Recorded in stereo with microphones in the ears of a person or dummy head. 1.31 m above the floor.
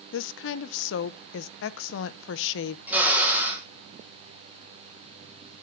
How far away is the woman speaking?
About 0.6 m.